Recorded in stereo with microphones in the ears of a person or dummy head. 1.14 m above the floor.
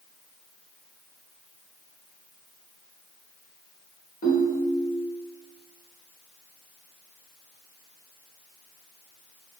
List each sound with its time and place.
4.2 s a ringtone: 40° left (ahead or behind), 1.2 m